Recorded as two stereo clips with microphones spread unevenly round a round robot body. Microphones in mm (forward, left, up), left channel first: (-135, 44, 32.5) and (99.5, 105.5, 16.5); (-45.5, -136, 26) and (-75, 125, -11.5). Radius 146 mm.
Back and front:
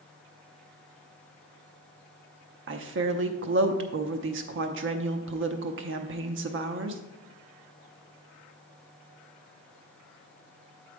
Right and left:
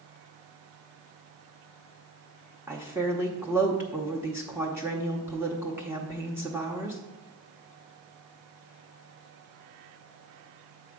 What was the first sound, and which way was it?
A woman speaking, 25° left.